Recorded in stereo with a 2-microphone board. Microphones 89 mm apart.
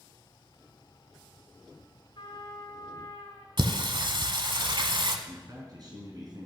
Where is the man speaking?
50° right (ahead or behind), 3 m.